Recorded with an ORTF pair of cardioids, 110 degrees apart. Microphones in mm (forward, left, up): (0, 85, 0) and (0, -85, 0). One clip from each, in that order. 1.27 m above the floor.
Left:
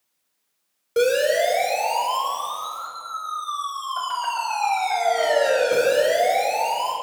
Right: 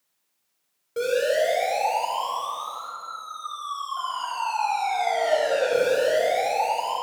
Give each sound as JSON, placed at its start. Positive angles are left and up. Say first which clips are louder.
{"t": 1.0, "sound": "a siren", "louder": "left 4 dB", "azimuth_deg": 60, "distance_m": 5.0}